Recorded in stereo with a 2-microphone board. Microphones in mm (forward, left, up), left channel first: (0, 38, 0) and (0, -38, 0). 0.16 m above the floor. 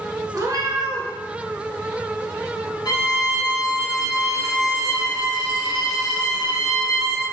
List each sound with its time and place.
0.3 s a cat meowing: 50° right (ahead or behind), 0.9 m
2.9 s a violin: 65° left (ahead or behind), 1.9 m